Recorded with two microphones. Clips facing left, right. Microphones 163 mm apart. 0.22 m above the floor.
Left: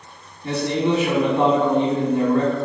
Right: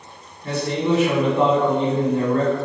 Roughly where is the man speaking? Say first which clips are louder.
Left 1 dB; left.